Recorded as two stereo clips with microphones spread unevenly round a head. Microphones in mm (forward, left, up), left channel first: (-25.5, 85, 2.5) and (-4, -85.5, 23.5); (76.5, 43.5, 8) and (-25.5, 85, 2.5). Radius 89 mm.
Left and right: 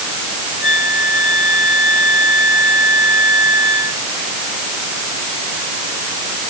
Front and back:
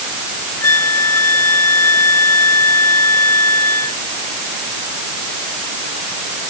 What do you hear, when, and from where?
0.6 s a flute: 45° left